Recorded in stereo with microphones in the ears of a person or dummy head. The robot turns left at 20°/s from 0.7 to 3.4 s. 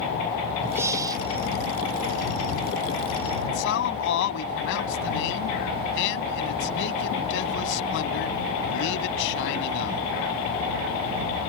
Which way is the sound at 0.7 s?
15° right (ahead or behind).